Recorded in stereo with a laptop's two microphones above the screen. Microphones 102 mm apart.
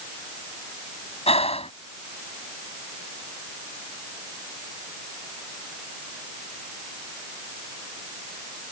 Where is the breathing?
85° left.